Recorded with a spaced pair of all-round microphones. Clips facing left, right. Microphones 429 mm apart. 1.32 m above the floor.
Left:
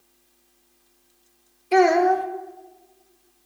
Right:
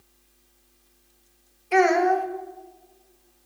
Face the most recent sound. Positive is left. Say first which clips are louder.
# left 3 dB
turn(degrees=55)  # may be behind; listen again after turning